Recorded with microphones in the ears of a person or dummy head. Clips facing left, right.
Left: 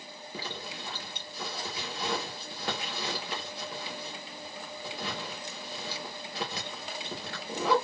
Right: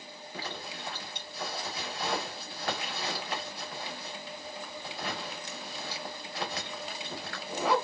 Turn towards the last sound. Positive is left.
turn(degrees=25)  # may be behind; listen again after turning